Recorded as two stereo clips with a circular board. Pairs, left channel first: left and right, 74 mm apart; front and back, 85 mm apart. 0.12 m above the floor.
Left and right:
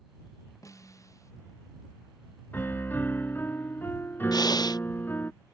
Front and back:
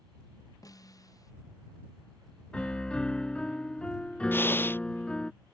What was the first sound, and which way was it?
A snare drum, 45° left.